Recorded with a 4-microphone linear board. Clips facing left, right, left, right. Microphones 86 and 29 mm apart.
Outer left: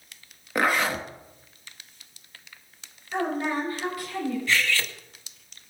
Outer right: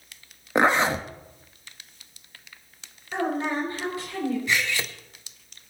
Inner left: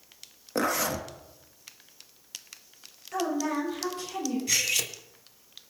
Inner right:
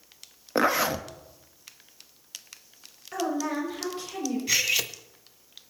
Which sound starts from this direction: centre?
Cutlery clinking, at 4.5 s.